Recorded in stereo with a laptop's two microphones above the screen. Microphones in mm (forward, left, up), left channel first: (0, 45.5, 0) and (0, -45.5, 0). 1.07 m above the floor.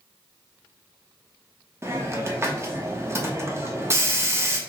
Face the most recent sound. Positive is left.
turn(degrees=-30)  # may be behind; listen again after turning